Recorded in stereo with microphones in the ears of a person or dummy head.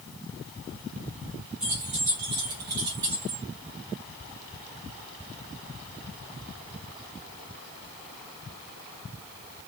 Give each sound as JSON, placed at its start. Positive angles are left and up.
{"t": 1.6, "sound": "keys jangling", "side_deg": -5, "distance_m": 0.6}